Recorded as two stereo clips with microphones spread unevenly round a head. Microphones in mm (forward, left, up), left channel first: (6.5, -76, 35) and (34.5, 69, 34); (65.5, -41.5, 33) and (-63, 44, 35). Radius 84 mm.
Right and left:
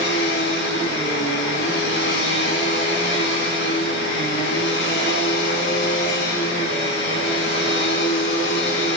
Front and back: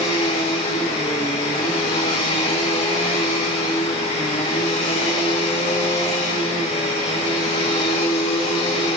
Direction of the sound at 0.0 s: 90° right.